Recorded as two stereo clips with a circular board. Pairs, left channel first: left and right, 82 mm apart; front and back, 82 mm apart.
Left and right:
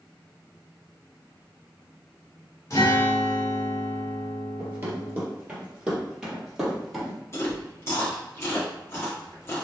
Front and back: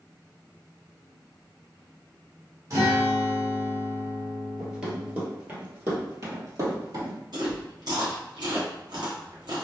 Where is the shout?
No shout in this recording.